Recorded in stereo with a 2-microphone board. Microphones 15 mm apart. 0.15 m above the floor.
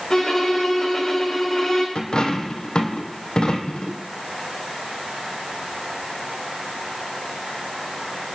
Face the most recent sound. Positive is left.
turn(degrees=80)